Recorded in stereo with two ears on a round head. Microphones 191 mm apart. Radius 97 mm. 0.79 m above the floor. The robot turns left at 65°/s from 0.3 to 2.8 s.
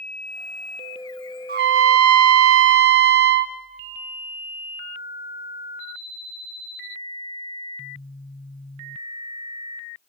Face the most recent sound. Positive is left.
turn(degrees=-130)